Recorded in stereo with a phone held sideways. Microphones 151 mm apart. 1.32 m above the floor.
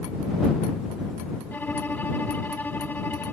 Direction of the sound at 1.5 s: 10° left (ahead or behind).